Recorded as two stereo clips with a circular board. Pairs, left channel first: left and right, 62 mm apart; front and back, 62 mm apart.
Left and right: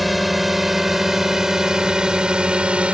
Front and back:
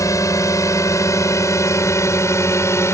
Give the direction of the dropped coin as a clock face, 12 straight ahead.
I don't hear a dropped coin.